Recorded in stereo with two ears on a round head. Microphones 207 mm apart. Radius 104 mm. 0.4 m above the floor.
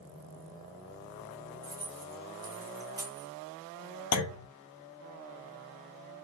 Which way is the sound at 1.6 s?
15° right (ahead or behind).